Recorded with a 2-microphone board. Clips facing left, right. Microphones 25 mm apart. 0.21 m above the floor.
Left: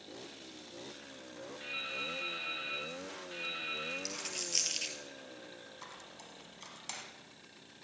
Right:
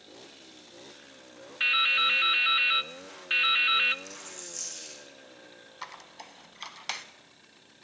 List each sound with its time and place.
1.6 s dripping: 60° right (ahead or behind), 0.5 m
4.0 s a dropped coin: 65° left (ahead or behind), 1.9 m
5.8 s a squeak: 45° right (ahead or behind), 1.1 m